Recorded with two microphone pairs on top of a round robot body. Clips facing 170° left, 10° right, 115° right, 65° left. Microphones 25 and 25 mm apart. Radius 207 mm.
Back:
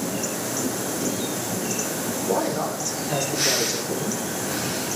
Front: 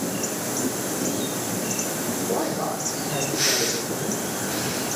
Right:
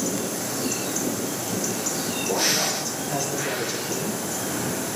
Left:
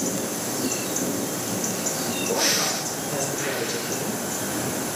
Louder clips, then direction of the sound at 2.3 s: Back 3 dB, even; 175° right.